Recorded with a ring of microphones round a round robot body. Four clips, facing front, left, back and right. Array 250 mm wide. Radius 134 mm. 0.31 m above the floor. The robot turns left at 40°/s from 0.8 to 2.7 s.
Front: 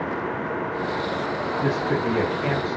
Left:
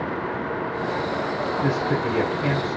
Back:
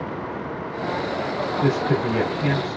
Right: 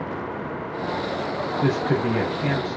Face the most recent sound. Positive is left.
turn(degrees=-160)